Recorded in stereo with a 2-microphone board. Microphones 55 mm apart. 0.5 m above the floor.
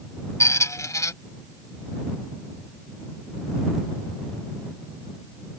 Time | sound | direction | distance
0.4 | a squeak | 70° left (ahead or behind) | ?